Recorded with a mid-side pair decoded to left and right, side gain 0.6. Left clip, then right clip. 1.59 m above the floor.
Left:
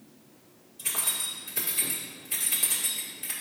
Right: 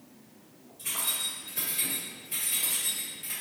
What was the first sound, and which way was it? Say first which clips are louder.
Keys jangling: even; 45° left.